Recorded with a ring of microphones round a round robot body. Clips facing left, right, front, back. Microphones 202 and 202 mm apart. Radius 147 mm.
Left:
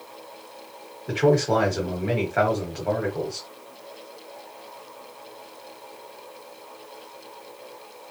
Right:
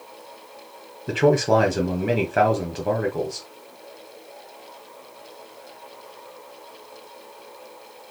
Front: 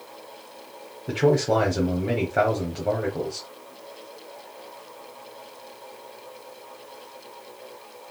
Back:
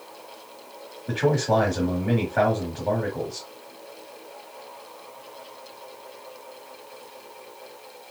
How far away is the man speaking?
About 1.0 m.